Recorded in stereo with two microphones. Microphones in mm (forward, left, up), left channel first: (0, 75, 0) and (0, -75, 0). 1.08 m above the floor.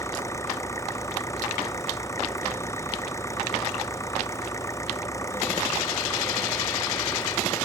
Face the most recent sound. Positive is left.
turn(degrees=20)  # may be behind; listen again after turning